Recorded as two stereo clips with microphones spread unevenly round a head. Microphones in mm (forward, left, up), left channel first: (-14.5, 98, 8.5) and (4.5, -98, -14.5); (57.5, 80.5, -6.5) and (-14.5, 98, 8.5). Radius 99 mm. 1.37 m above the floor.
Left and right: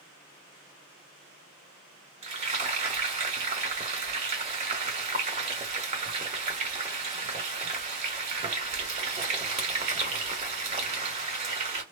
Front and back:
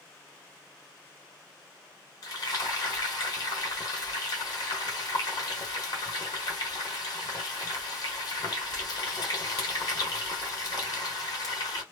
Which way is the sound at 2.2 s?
35° right.